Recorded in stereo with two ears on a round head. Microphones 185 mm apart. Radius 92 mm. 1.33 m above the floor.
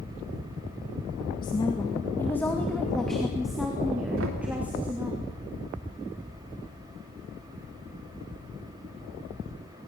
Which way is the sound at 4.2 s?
70° right (ahead or behind).